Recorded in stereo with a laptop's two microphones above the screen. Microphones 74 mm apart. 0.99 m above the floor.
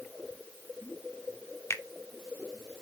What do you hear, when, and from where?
1.7 s a finger snap: 40° left (ahead or behind), 0.7 m